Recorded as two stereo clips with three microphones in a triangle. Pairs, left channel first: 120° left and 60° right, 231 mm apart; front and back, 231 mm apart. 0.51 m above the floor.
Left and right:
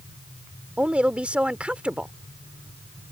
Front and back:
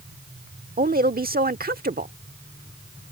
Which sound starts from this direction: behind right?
A woman speaking, at 0.8 s.